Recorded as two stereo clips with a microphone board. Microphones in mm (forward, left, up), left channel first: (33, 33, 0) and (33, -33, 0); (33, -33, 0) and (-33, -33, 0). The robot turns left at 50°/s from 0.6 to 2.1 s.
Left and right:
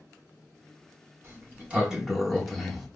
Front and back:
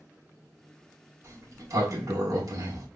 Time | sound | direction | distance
1.2 | a sliding door | 135° right | 0.8 m